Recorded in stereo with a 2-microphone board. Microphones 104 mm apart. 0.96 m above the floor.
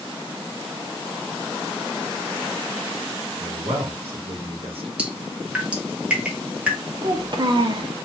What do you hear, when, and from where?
3.4 s a man speaking: 60° right (ahead or behind), 0.8 m
5.0 s dripping: 15° right (ahead or behind), 0.8 m
7.0 s a child speaking: 45° right (ahead or behind), 0.6 m